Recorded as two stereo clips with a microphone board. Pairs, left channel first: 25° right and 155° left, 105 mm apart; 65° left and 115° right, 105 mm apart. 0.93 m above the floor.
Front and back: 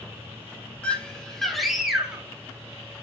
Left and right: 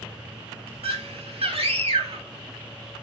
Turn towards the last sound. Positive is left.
turn(degrees=-125)